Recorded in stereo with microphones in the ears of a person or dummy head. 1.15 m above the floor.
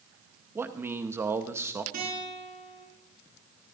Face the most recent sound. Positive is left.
turn(degrees=-55)  # may be behind; listen again after turning